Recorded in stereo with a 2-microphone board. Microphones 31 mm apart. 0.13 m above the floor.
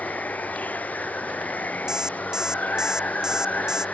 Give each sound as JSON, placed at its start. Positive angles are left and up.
{"t": 0.0, "sound": "running water", "side_deg": 65}
{"t": 1.9, "sound": "an alarm clock", "side_deg": -20}